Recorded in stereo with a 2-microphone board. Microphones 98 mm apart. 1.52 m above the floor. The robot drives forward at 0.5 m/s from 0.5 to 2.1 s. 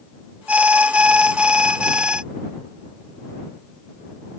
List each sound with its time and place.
0.5 s an alarm: 15° right (ahead or behind); by 2.2 s 10° right (ahead or behind)